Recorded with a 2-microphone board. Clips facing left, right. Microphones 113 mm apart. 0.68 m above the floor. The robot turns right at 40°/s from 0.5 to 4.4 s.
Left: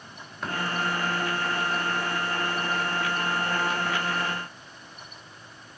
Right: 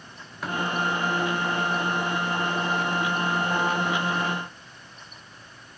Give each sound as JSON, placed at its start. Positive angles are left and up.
{"t": 0.4, "sound": "tapping", "side_deg": -5, "distance_m": 3.5}